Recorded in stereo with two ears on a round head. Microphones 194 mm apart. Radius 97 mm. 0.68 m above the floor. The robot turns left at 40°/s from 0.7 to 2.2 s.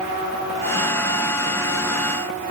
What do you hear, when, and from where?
Only background noise.